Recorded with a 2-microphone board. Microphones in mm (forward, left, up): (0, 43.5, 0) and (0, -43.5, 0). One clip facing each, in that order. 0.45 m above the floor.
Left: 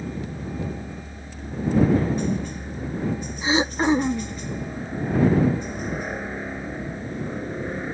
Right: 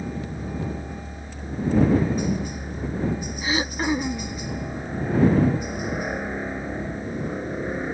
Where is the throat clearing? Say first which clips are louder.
Left 5 dB; 25° left (ahead or behind).